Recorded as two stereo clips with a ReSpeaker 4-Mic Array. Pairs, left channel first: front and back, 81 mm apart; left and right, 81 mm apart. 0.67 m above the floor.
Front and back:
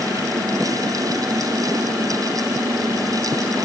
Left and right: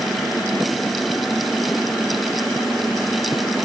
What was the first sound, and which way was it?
Only background noise.